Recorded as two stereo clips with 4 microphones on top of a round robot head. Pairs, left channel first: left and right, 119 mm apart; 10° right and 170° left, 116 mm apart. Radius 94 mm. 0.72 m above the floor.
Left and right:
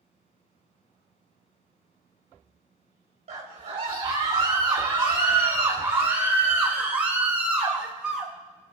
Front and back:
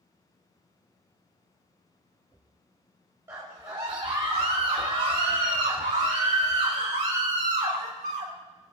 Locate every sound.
3.3 s a scream: 120° right, 2.5 m; by 8.3 s 175° right, 4.5 m